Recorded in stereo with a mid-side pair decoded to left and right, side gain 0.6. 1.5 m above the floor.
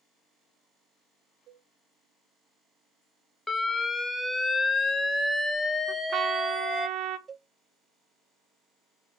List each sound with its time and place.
1.5 s a cowbell: 65° right, 4 m
3.5 s an alarm: 15° left, 1.3 m
5.9 s a trumpet: 55° right, 1.2 m
7.3 s a cowbell: 25° right, 0.5 m